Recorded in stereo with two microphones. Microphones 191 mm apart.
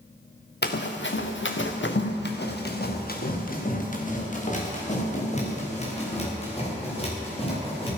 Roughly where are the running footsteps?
Left.